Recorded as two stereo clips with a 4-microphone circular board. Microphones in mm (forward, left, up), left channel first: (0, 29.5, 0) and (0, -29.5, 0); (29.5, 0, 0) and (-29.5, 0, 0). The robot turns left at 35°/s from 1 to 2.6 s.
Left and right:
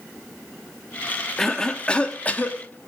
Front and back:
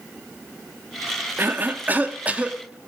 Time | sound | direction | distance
1.4 | a cough | 170° left | 1.1 m